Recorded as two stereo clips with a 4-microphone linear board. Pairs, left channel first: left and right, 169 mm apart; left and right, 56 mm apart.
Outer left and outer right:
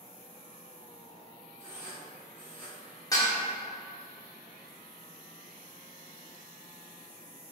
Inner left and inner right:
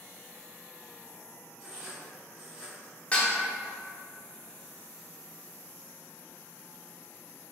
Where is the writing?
15° right (ahead or behind), 1.9 m.